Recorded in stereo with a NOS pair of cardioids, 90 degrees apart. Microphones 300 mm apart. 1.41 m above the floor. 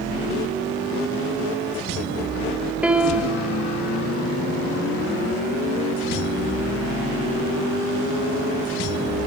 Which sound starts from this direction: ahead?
A piano, at 2.8 s.